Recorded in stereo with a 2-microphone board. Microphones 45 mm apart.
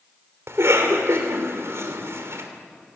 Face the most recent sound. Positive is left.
turn(degrees=-75)  # may be behind; listen again after turning